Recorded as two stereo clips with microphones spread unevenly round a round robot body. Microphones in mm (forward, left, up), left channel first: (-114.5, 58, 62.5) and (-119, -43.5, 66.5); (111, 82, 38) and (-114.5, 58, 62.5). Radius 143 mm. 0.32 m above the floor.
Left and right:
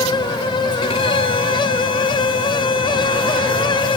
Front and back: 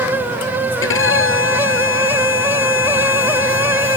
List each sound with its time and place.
0.8 s a violin: 35° left